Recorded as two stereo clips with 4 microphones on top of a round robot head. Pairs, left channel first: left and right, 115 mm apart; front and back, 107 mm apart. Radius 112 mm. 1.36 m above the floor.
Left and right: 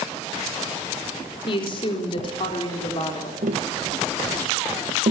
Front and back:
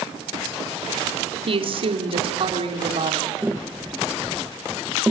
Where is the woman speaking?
145° left, 4 m.